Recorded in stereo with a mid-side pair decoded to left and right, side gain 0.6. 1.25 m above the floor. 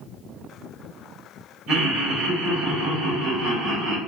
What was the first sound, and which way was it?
Laughter, 65° right.